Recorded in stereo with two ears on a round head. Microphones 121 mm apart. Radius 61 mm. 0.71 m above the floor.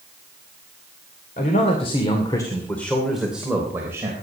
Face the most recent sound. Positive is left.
turn(degrees=-20)  # may be behind; listen again after turning